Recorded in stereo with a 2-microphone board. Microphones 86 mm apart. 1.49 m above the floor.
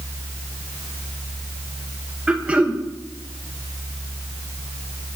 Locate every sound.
2.3 s throat clearing: 10° right (ahead or behind), 1.2 m